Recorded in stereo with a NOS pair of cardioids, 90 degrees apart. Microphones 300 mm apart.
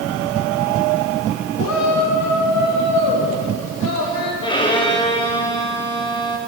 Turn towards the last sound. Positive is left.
turn(degrees=15)